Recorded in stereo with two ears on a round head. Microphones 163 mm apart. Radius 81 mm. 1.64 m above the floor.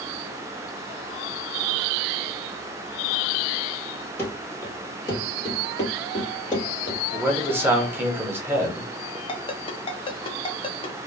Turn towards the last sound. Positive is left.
turn(degrees=30)  # may be behind; listen again after turning